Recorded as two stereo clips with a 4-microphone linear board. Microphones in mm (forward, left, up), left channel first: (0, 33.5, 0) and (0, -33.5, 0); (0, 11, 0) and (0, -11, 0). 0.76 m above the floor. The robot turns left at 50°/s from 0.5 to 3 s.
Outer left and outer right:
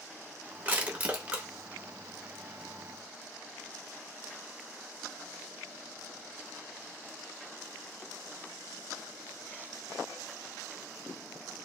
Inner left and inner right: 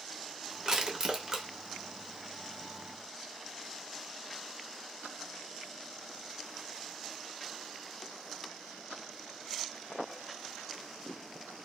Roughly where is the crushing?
Right.